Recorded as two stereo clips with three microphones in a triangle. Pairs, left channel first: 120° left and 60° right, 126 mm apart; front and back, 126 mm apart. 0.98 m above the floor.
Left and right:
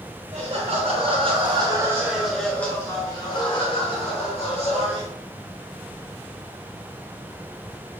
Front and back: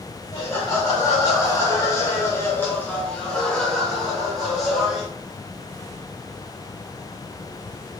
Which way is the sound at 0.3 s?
65° right.